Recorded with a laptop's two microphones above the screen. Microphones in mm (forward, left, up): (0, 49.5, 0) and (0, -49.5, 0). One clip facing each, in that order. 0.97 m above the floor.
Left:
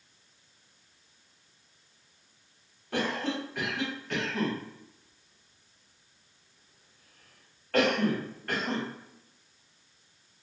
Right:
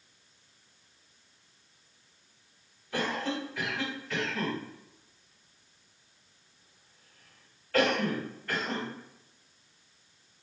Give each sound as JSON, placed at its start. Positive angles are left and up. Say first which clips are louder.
{"t": 2.9, "sound": "a cough", "louder": "left 1 dB", "side_deg": 65, "distance_m": 1.3}